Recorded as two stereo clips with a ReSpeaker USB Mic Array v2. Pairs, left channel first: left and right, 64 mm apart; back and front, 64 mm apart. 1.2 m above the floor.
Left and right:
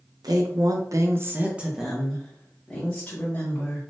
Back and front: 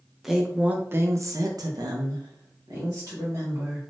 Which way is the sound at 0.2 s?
85° right.